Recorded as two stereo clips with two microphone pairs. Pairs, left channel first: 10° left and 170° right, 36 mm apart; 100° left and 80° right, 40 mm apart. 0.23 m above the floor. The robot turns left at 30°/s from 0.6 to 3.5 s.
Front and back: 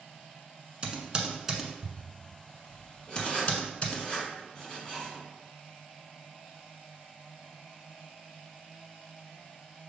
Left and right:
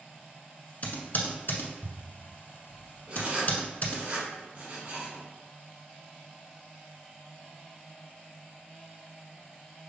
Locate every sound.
0.8 s typing on a keyboard: 140° left, 0.9 m; by 4.0 s 60° left, 0.9 m
3.1 s writing: 45° right, 1.8 m; by 5.2 s 60° right, 1.8 m